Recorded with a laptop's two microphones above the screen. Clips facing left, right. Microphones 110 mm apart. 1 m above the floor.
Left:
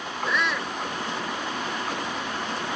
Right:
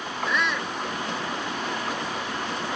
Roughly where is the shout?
Centre.